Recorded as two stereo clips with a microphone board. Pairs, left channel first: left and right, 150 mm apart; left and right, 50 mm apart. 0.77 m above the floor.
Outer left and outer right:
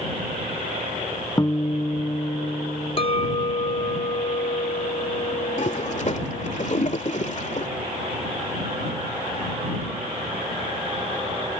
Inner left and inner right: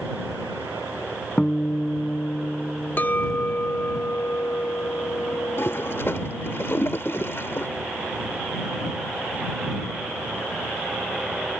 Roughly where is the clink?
Left.